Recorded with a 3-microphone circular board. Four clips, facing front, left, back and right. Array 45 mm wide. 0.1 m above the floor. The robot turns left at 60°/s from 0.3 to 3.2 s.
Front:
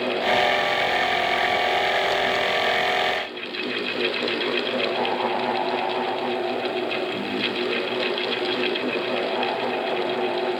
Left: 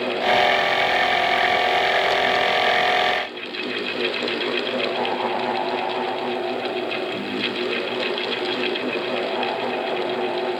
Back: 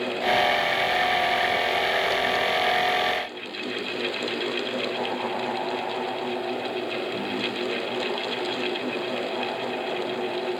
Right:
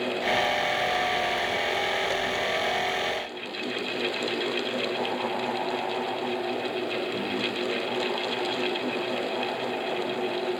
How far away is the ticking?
I don't hear ticking.